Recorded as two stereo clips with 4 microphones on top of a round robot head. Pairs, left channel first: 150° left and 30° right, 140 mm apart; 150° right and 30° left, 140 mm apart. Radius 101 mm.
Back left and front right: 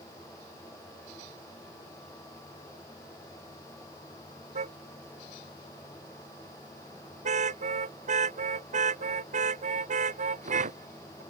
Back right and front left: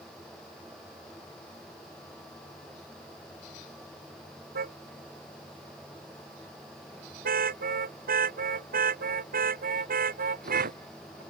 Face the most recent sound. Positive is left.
turn(degrees=10)